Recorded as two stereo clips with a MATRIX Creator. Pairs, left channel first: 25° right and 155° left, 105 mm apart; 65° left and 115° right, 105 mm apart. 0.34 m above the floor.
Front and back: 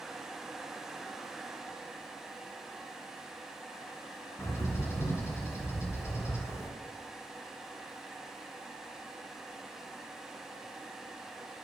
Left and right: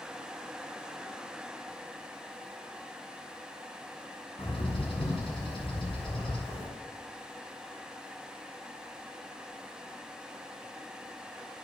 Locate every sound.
4.4 s a bird: 40° left, 3.5 m